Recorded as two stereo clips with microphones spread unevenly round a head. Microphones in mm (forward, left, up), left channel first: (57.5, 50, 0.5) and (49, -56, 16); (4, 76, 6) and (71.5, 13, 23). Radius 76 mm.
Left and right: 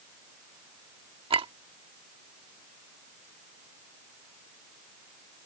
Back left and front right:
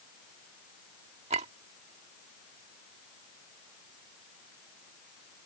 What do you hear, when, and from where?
1.3 s a clink: 60° right